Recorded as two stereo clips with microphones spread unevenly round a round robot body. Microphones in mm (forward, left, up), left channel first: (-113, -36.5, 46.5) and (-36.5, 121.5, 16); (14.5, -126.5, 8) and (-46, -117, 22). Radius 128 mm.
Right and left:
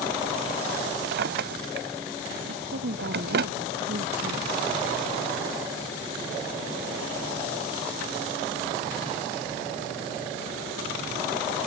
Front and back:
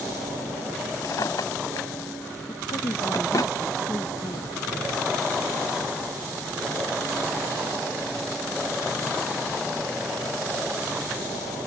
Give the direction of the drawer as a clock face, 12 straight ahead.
11 o'clock.